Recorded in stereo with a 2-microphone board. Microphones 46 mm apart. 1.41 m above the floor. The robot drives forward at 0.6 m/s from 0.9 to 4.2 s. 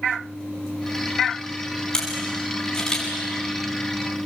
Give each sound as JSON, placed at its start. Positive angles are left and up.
{"t": 1.9, "sound": "a camera shutter", "side_deg": 15, "distance_m": 7.0}